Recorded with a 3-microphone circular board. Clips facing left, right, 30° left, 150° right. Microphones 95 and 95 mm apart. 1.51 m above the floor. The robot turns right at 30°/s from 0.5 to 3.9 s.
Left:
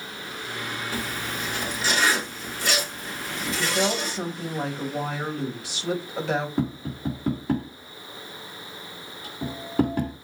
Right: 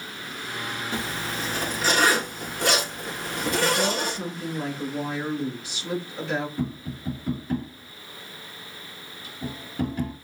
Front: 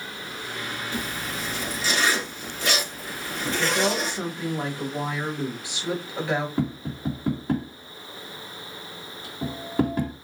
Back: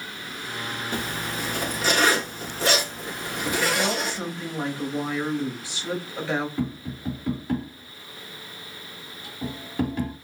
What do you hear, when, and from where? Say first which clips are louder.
0.9 s a zipper: right 1 dB, back 3 dB; 150° right, 1.7 m; by 4.2 s 60° right, 1.7 m
3.6 s a woman speaking: even, front 2 dB; 90° left, 2.5 m; by 6.5 s 100° left, 2.5 m
6.6 s tapping: left 3 dB, front 2 dB; 85° left, 2.5 m